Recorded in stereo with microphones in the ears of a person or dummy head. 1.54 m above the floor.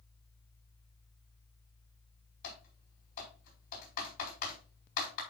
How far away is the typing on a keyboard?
About 5 m.